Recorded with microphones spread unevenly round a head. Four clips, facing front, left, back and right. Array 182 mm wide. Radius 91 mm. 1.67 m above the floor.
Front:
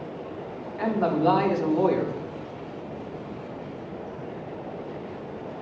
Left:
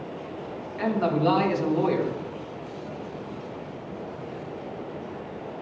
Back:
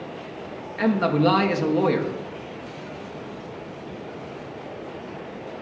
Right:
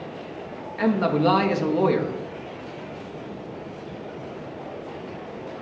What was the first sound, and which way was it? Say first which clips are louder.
A man speaking: right 3 dB, back 3 dB; 150° right.